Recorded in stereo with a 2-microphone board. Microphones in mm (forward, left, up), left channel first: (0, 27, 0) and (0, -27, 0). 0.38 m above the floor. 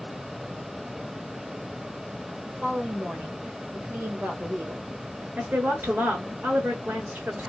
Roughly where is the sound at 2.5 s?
Right.